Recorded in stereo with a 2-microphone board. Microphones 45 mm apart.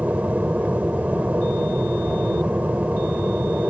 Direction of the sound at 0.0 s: 35° right (ahead or behind).